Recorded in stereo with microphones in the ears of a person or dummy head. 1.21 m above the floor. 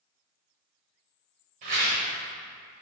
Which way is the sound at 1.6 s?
45° right (ahead or behind).